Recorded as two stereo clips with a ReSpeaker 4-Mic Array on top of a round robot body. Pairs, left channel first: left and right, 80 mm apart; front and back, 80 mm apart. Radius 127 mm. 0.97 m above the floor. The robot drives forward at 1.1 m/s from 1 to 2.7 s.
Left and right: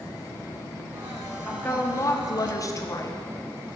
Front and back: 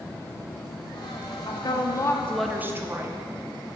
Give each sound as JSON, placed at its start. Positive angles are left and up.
{"t": 1.5, "sound": "a woman speaking", "azimuth_deg": 25, "distance_m": 1.2}